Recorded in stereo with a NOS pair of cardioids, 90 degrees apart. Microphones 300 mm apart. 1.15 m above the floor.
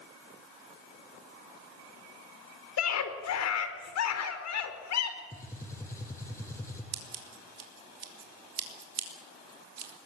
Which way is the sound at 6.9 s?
55° right.